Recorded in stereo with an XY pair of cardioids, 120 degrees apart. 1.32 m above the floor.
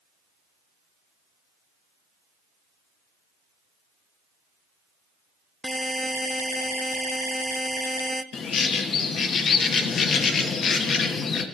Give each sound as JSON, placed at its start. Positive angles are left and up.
{"t": 5.6, "sound": "a buzzer", "azimuth_deg": 0, "distance_m": 0.5}
{"t": 8.3, "sound": "a bird", "azimuth_deg": 45, "distance_m": 1.1}